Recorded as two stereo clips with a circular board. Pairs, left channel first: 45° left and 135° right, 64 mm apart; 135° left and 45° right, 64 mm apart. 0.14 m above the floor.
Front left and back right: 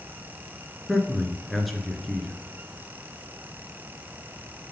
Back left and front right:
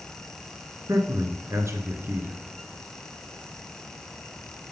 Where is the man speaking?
45° right, 1.5 m.